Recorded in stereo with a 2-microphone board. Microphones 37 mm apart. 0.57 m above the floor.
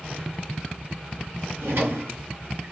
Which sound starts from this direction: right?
A drawer, at 1.6 s.